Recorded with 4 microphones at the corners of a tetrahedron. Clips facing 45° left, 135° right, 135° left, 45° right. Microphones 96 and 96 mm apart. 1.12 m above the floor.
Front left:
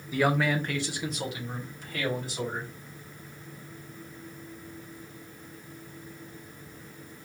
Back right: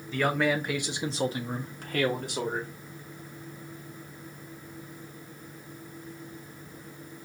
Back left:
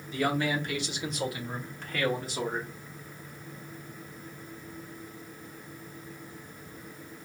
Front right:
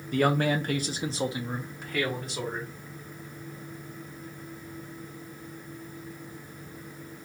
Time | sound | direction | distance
0.1 | a man speaking | 30° right | 1.0 m